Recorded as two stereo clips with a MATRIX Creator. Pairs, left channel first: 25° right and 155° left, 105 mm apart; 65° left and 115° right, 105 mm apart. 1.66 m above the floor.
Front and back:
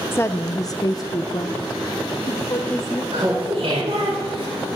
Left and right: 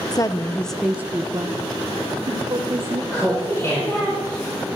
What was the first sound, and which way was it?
A woman speaking, 35° left.